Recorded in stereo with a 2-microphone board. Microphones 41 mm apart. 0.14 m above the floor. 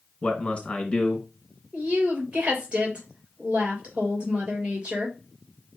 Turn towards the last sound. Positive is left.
turn(degrees=-30)  # may be behind; listen again after turning